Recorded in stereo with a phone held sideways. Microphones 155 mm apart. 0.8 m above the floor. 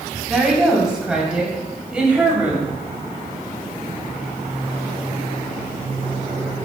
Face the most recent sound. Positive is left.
turn(degrees=-10)  # may be behind; listen again after turning